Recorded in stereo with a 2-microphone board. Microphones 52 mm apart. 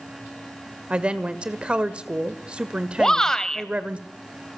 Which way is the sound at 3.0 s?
10° left (ahead or behind).